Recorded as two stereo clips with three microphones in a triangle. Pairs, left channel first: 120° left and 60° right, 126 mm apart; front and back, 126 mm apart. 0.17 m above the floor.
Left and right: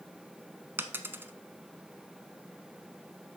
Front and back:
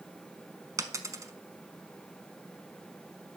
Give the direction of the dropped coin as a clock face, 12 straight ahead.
4 o'clock.